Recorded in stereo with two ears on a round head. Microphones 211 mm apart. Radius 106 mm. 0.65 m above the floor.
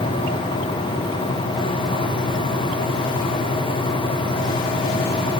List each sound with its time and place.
Only background noise.